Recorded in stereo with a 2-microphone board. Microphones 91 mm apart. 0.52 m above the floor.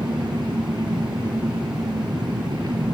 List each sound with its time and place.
0.0 s an engine running: 50° right (ahead or behind), 4.5 m